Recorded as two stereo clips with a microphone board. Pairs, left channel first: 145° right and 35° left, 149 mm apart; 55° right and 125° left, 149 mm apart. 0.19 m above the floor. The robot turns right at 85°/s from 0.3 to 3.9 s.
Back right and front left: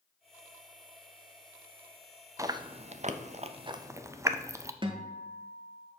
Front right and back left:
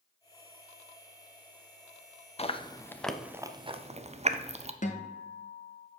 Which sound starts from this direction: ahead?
A guitar, at 4.8 s.